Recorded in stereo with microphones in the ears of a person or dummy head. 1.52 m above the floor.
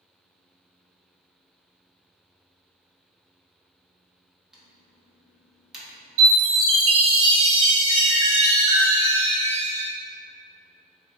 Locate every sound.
4.5 s typing on a keyboard: centre (ahead or behind), 0.6 m
6.2 s a chime: 80° right, 1.0 m